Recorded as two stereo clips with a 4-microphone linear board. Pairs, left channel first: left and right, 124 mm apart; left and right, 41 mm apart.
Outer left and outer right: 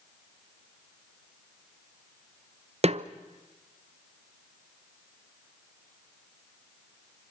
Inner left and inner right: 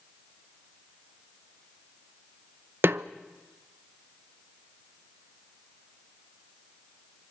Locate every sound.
2.8 s a snare drum: 55° right (ahead or behind), 0.8 m